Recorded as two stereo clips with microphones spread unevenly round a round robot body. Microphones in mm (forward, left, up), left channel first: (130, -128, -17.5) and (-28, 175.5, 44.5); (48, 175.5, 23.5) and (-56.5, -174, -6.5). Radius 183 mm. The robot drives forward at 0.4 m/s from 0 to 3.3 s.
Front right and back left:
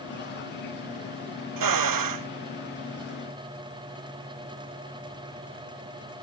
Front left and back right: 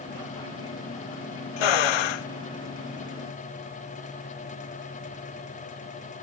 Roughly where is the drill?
Left.